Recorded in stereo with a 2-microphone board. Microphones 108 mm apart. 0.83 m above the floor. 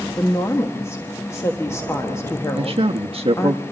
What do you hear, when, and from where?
0.2 s a woman speaking: 25° left (ahead or behind), 1.2 m
2.5 s a man speaking: 60° right (ahead or behind), 0.8 m